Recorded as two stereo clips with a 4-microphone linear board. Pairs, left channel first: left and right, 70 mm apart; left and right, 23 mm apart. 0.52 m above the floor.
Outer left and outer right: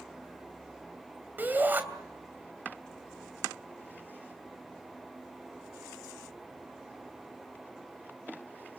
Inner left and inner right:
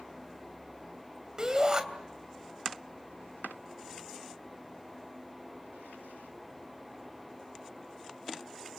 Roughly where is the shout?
Right.